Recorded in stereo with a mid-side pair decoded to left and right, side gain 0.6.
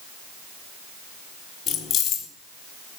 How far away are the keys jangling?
About 2.0 m.